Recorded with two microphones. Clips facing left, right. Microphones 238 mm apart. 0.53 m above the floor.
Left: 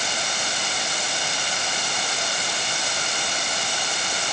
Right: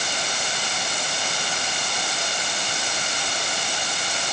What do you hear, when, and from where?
Only background noise.